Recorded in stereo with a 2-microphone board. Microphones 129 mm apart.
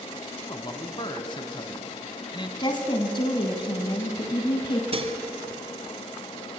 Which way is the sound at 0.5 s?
35° left (ahead or behind).